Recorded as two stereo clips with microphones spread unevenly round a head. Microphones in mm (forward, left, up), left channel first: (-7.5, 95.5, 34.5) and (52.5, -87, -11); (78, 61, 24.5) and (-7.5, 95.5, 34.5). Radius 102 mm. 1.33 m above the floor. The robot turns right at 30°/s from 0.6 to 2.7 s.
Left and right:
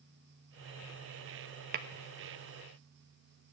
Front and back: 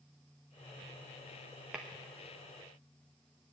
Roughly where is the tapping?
Behind right.